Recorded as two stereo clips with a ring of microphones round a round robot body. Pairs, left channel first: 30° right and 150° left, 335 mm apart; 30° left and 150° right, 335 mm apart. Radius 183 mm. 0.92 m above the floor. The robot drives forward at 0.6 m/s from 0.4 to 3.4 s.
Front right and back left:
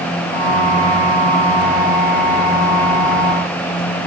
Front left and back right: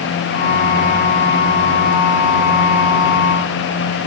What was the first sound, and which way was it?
Only background noise.